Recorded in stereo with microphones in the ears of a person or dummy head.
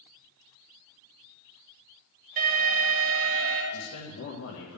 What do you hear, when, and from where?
2.4 s an alarm: 45° right (ahead or behind), 3 m
3.7 s a man speaking: 75° left (ahead or behind), 1.8 m